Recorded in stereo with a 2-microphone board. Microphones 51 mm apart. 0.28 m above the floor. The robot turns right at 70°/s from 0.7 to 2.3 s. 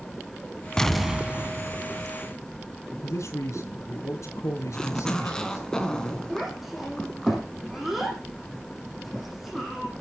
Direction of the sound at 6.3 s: Centre (ahead or behind).